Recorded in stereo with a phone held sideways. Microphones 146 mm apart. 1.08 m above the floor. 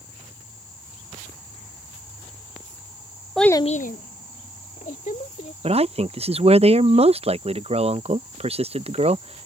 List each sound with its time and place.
3.4 s a child speaking: centre (ahead or behind); by 5.5 s 60° left (ahead or behind)
5.6 s a man speaking: 45° right (ahead or behind)